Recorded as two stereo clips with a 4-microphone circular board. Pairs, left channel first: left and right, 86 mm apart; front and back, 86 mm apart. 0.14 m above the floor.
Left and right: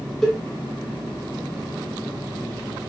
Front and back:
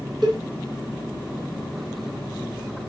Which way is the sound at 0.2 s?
175° left.